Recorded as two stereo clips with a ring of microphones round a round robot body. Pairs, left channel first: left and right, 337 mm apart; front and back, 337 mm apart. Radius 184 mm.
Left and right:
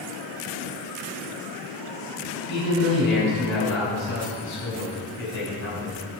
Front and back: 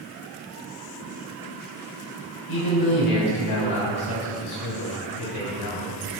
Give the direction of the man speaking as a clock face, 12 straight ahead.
11 o'clock.